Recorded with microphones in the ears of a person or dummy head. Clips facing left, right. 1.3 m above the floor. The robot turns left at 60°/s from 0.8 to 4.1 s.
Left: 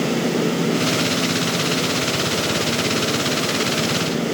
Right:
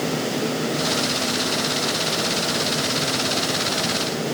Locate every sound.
Only background noise.